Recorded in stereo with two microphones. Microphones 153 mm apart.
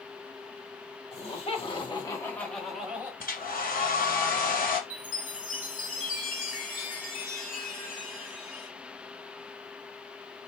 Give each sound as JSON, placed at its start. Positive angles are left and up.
{"t": 1.1, "sound": "laughter", "side_deg": 45, "distance_m": 1.6}
{"t": 3.2, "sound": "a hair dryer", "side_deg": 75, "distance_m": 0.9}
{"t": 4.9, "sound": "a chime", "side_deg": 65, "distance_m": 1.5}